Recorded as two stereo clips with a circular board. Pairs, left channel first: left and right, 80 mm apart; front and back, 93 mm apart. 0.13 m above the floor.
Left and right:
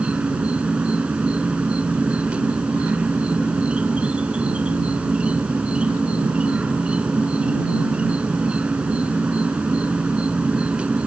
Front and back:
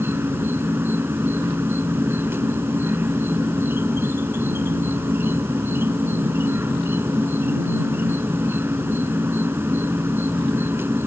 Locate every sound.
0.0 s an insect: 150° right